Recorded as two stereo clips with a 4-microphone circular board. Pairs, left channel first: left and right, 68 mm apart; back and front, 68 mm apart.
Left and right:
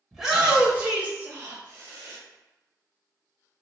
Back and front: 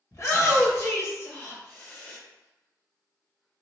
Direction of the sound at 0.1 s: 175° right.